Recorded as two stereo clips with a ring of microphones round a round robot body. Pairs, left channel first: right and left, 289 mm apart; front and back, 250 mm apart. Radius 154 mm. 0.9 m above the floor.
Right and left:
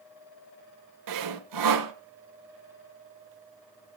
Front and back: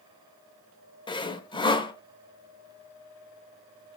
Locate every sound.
1.1 s sawing: 70° left, 1.2 m